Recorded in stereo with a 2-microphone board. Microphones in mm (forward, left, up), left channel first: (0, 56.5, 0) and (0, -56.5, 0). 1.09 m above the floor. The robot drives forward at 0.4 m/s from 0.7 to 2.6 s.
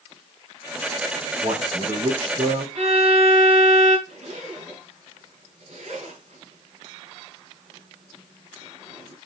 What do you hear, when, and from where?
1.4 s a man speaking: 70° right (ahead or behind), 3 m; by 2.6 s 80° right, 2.5 m
2.8 s a violin: 70° right (ahead or behind), 2.5 m
4.1 s a zipper: 80° right, 4.5 m